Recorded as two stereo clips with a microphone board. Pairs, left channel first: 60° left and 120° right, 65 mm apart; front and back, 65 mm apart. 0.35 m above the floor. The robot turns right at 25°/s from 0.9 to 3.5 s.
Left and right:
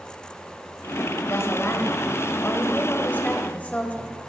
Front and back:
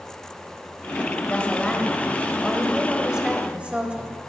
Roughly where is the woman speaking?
Ahead left.